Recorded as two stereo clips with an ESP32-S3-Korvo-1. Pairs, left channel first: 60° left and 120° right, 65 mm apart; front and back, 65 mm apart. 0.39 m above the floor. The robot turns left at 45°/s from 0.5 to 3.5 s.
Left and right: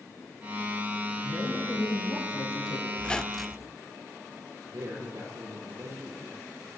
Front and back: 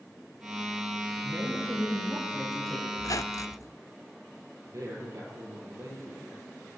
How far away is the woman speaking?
About 7 m.